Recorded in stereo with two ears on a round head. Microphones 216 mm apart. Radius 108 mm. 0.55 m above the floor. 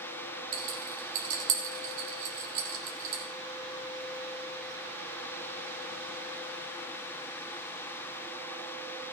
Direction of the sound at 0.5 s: 60° right (ahead or behind).